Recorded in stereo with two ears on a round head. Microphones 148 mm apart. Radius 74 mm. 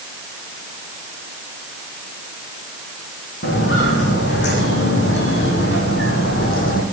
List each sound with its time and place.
3.4 s footsteps: 75° left (ahead or behind), 6 m; by 6.8 s 55° left (ahead or behind), 4.5 m